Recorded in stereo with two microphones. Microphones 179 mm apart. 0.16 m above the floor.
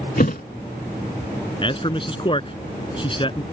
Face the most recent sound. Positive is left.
turn(degrees=30)  # may be behind; listen again after turning